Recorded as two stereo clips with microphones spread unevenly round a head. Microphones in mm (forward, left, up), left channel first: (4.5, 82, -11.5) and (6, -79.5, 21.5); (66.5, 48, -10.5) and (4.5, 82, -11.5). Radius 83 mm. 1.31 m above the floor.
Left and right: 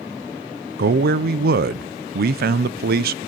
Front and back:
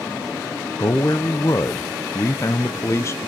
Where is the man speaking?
80° right, 0.5 m.